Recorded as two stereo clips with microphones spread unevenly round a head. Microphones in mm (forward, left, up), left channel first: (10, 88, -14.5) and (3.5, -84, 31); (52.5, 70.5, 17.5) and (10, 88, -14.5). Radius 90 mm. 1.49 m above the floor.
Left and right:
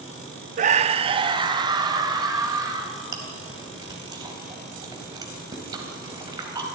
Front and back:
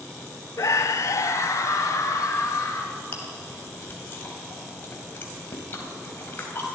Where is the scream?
45° right, 0.5 m; by 3.0 s 20° right, 3 m.